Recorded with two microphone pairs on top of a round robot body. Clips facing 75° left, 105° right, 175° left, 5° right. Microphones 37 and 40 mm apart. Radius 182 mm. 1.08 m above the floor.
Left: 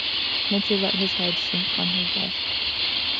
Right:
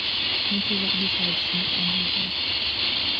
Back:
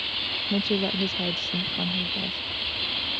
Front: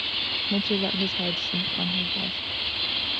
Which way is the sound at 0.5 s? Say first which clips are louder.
Left 2 dB, back 1 dB; 85° left.